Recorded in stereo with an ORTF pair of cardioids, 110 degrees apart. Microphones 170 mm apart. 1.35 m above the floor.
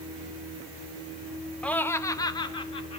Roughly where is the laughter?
Ahead.